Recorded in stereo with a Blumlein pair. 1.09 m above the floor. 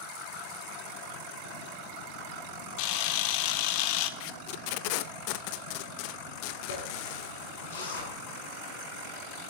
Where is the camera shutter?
45° left, 1.4 m.